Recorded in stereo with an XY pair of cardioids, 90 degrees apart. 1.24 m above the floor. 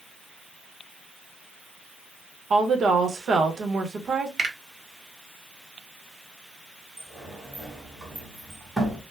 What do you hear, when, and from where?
2.5 s a woman speaking: 55° right, 0.9 m
4.4 s a finger snap: 45° right, 1.1 m
7.0 s a sliding door: 20° right, 1.4 m